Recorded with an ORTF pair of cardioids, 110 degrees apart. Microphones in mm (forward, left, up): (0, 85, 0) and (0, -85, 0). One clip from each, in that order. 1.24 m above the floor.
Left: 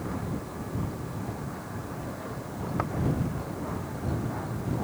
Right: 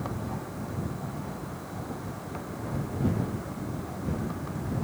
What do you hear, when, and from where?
Only background noise.